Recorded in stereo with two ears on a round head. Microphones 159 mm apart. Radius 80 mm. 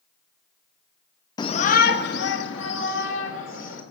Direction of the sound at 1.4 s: 25° left (ahead or behind).